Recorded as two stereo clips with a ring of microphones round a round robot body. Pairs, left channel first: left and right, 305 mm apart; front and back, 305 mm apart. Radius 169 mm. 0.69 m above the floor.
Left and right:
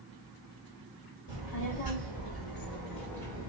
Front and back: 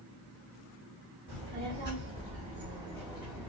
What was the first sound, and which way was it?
A child speaking, 105° left.